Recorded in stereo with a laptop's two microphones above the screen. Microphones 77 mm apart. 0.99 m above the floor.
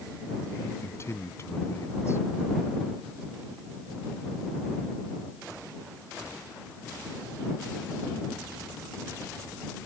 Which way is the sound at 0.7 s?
35° left (ahead or behind).